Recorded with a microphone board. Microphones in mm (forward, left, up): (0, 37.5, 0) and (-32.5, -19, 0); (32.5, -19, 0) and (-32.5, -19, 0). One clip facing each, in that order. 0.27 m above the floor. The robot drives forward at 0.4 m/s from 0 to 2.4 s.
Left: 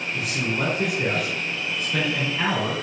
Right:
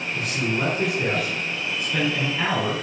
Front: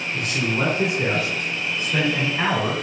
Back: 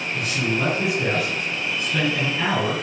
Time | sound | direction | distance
0.1 | a man speaking | 25° right | 3 m